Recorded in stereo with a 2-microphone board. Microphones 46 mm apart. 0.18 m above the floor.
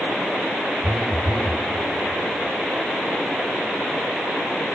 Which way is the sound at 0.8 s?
10° left (ahead or behind).